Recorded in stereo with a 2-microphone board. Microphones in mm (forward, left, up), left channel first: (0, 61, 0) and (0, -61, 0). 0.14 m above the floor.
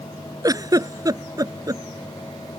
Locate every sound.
0.4 s a giggle: 30° right (ahead or behind)